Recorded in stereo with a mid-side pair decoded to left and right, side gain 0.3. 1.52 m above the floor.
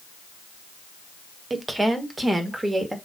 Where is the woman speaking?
30° right, 1.7 m; by 3.0 s 20° right, 3 m.